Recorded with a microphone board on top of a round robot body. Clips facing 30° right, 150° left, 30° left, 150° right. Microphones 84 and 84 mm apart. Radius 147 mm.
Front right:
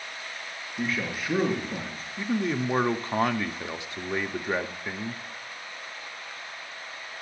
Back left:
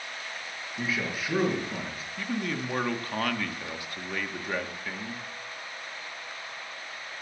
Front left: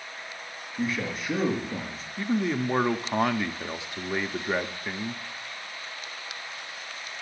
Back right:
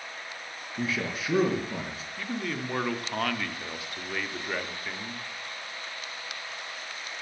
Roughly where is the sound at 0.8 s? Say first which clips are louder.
Front right 1 dB, front left 1 dB; behind right.